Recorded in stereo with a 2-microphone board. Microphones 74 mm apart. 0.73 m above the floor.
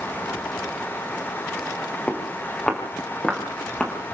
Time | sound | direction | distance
2.1 | footsteps | 15° left (ahead or behind) | 7 m